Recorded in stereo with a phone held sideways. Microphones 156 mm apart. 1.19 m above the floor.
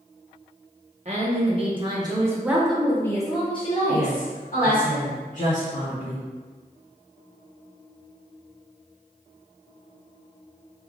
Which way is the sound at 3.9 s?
55° left (ahead or behind).